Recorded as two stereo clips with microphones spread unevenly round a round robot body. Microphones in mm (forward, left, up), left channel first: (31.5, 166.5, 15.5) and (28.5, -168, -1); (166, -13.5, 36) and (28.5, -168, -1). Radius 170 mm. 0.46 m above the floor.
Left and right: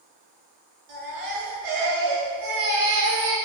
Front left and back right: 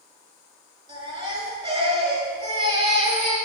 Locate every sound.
0.9 s a baby crying: 65° right, 5 m